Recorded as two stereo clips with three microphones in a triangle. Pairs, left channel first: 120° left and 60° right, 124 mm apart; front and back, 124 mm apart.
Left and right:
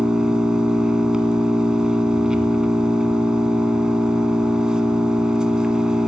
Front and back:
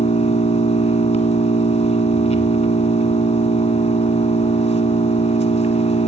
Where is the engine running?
25° left, 1.1 m.